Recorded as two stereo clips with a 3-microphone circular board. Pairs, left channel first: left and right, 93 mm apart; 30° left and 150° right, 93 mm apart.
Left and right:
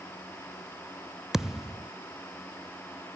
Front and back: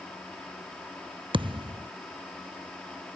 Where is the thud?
175° right.